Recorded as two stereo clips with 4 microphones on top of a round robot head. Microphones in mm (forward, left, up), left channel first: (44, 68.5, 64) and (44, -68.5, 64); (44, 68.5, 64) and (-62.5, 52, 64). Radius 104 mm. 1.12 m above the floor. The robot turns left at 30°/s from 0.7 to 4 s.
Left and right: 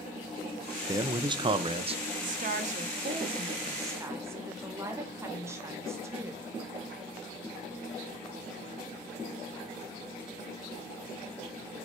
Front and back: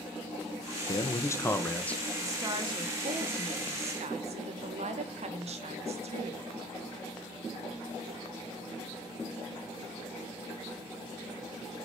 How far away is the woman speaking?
About 1.1 m.